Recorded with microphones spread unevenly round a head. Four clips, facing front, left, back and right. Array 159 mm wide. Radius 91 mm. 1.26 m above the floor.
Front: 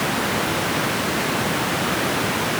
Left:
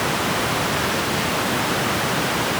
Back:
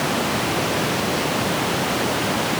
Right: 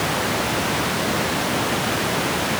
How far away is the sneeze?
No sneeze in this recording.